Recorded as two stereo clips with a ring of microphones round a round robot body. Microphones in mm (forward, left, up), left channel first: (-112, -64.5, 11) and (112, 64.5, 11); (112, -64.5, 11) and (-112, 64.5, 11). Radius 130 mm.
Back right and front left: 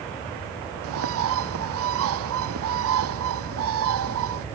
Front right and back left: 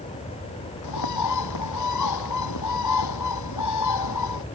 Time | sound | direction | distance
0.8 | a bird | 10° right | ?